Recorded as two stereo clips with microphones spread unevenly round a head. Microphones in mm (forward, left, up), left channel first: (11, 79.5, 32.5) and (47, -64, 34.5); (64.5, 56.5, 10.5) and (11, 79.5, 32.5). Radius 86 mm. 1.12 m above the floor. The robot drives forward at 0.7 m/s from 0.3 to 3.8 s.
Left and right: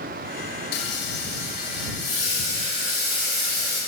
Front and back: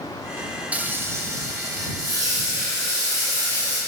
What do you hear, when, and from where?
0.7 s frying: 105° left, 0.6 m; by 3.8 s 170° left, 2.5 m